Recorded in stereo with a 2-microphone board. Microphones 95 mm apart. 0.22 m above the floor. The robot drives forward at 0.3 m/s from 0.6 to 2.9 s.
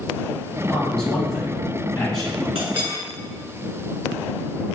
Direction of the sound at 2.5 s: 65° right (ahead or behind).